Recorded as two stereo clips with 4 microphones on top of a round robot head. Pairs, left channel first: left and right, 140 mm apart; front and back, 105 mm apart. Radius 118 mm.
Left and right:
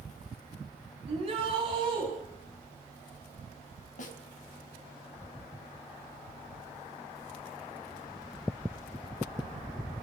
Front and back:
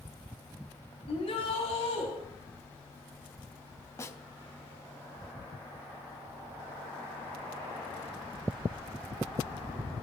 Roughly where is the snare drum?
Ahead left.